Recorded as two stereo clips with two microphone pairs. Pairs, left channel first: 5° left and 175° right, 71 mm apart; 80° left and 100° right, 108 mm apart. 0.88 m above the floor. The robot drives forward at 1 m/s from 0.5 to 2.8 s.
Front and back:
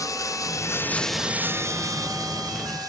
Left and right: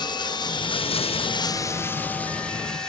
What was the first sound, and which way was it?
Running water, 40° left.